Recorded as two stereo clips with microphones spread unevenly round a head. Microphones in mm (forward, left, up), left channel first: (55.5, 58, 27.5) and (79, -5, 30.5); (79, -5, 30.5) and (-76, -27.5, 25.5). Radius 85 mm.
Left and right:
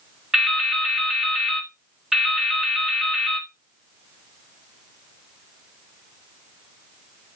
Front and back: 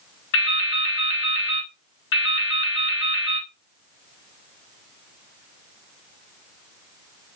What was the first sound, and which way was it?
Dripping, 10° left.